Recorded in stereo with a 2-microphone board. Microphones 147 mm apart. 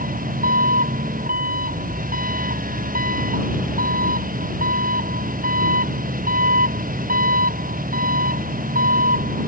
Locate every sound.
0.0 s an engine running: 70° right (ahead or behind)